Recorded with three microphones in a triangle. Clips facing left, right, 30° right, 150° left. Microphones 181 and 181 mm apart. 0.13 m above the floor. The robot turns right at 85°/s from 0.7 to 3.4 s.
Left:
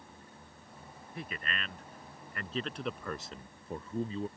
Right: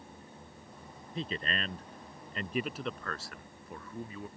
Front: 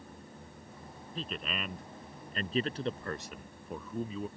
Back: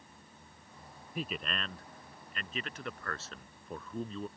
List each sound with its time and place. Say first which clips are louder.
1.1 s a man speaking: right 5 dB, back 1 dB; 145° right; by 4.3 s 50° left